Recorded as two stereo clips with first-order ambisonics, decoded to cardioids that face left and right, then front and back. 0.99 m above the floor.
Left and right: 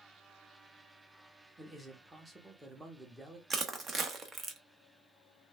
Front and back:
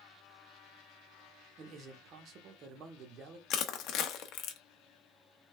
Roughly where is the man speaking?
Behind.